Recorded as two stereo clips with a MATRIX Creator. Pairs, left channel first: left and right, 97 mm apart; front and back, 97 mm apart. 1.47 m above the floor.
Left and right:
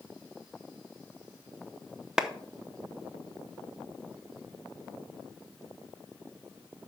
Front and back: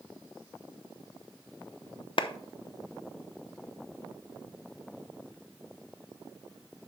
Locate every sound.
2.2 s a clap: 5° right, 0.6 m